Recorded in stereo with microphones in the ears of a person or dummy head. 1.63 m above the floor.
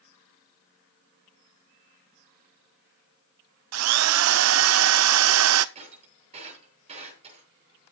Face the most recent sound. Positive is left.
turn(degrees=-35)  # may be behind; listen again after turning